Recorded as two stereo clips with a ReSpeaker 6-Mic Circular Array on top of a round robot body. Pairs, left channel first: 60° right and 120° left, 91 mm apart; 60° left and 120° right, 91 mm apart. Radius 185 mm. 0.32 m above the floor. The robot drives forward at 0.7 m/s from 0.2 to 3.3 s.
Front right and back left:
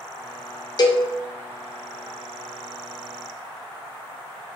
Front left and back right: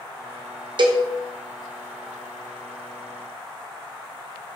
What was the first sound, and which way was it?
A cowbell, 95° right.